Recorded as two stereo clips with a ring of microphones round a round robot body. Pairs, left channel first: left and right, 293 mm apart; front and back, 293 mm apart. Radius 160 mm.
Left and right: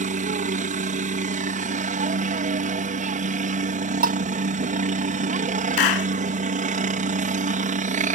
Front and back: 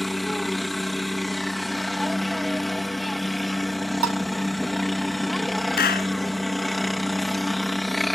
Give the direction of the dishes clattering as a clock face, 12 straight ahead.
5 o'clock.